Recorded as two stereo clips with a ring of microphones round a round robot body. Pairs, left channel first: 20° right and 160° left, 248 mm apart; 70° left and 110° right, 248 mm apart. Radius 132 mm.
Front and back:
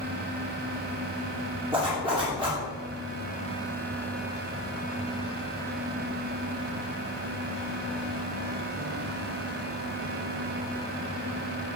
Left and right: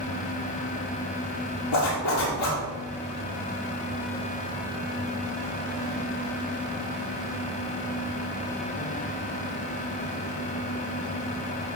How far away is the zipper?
About 4 m.